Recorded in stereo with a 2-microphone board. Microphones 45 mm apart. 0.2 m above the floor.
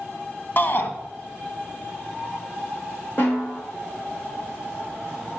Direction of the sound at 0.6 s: 45° left (ahead or behind).